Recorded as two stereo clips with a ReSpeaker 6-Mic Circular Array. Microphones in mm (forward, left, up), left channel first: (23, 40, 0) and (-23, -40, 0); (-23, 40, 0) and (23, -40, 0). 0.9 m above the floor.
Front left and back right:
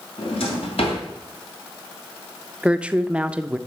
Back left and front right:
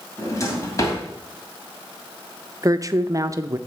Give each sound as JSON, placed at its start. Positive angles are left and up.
{"t": 0.2, "sound": "a drawer", "azimuth_deg": 65, "distance_m": 2.5}
{"t": 2.6, "sound": "a woman speaking", "azimuth_deg": -50, "distance_m": 0.5}